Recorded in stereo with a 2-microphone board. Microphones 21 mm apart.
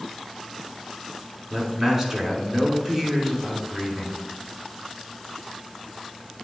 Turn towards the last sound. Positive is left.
turn(degrees=-10)  # may be behind; listen again after turning